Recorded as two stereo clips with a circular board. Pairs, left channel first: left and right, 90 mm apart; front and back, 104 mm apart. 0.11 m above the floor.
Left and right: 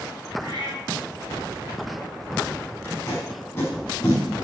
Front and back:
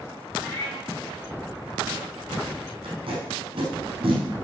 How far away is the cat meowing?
About 3 m.